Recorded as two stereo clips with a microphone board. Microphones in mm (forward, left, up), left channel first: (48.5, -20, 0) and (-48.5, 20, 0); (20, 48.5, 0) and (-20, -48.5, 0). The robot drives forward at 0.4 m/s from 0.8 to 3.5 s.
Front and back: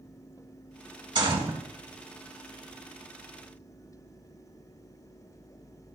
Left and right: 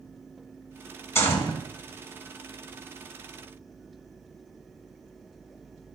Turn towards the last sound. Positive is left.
turn(degrees=150)